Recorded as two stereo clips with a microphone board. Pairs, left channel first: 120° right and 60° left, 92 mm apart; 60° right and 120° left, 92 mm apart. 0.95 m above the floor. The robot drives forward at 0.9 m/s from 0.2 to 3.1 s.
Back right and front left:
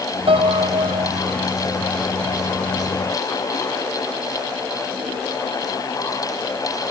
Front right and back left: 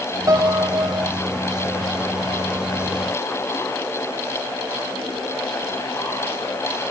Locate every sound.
0.3 s a piano: 70° left